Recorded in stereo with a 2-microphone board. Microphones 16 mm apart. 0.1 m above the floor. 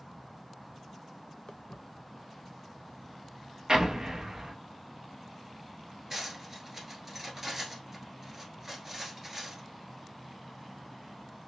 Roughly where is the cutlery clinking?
Right.